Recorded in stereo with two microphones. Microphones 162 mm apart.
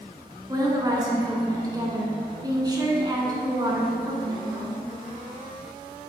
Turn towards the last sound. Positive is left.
turn(degrees=-25)  # may be behind; listen again after turning